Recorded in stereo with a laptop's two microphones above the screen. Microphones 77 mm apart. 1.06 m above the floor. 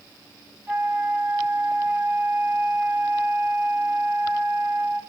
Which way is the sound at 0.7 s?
25° right (ahead or behind).